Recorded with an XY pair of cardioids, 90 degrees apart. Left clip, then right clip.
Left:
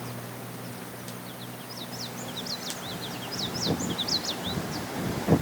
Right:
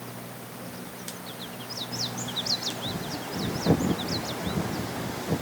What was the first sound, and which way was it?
Only background noise.